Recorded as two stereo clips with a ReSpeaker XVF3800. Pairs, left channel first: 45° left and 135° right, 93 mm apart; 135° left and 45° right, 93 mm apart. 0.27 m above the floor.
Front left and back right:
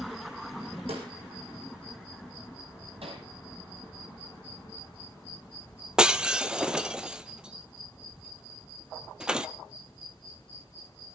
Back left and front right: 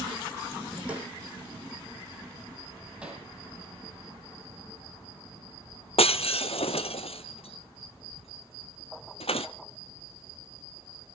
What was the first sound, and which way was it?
A snare drum, 120° right.